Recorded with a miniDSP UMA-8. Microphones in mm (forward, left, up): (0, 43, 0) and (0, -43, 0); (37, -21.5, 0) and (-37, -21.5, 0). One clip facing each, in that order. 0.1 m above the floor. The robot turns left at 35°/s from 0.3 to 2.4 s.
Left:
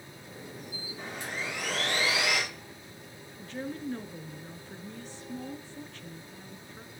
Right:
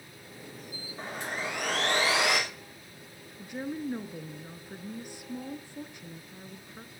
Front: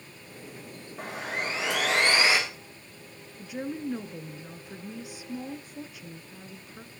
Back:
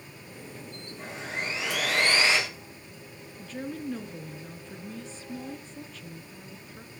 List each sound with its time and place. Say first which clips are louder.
1.0 s sawing: right 3 dB, front 2 dB; 35° right, 6.5 m; by 2.4 s 85° right, 6.5 m
3.4 s a woman speaking: right 2 dB, front 2 dB; 45° right, 1.1 m